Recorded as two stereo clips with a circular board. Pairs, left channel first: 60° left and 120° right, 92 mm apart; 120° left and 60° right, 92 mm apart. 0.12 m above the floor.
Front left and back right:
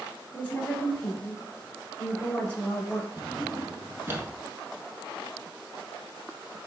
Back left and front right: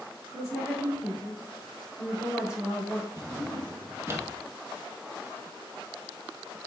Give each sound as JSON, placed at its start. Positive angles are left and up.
{"t": 0.3, "sound": "a woman speaking", "azimuth_deg": 5, "distance_m": 1.5}
{"t": 3.2, "sound": "a drawer", "azimuth_deg": -80, "distance_m": 0.8}